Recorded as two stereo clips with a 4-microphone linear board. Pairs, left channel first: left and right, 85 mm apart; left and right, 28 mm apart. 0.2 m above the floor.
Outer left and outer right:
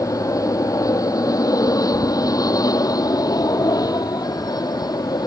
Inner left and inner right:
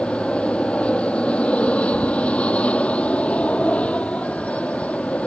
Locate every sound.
0.0 s an aircraft: 40° left (ahead or behind); by 5.3 s 50° left (ahead or behind)